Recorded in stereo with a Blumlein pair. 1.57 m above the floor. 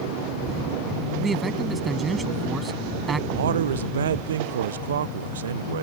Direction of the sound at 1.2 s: 15° right.